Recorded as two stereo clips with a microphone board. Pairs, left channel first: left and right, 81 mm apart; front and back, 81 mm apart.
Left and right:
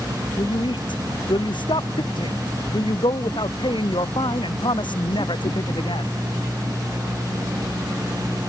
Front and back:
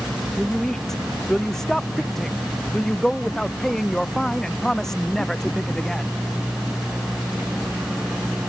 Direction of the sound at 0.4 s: 85° left.